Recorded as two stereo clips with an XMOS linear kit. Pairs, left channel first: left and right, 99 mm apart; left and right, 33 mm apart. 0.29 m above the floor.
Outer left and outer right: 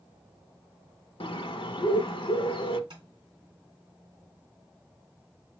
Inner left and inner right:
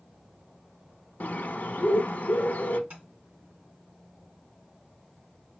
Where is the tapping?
55° right (ahead or behind), 2.5 m.